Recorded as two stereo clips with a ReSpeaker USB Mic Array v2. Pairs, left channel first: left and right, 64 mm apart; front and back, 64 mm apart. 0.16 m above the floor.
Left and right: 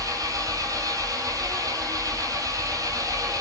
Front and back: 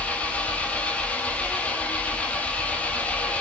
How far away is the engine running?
About 1.6 m.